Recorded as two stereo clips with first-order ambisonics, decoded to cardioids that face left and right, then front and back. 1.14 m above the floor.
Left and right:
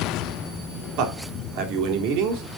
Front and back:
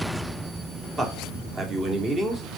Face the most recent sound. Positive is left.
turn(degrees=-110)